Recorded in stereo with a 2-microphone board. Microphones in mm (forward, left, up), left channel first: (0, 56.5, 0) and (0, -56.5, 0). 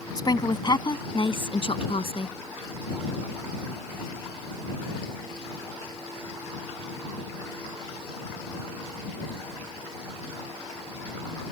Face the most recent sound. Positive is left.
turn(degrees=60)  # may be behind; listen again after turning